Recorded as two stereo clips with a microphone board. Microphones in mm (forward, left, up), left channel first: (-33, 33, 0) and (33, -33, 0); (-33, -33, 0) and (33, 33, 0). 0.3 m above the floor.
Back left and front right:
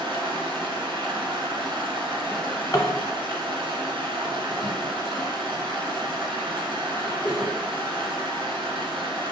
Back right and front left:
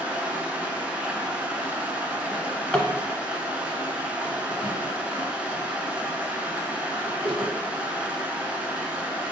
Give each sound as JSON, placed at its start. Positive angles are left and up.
{"t": 0.0, "sound": "running water", "azimuth_deg": -30, "distance_m": 0.8}
{"t": 2.3, "sound": "a drawer", "azimuth_deg": 150, "distance_m": 0.9}